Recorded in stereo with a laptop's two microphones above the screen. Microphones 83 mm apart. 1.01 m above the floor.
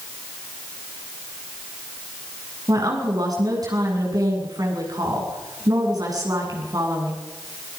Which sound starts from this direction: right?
A woman speaking, at 2.7 s.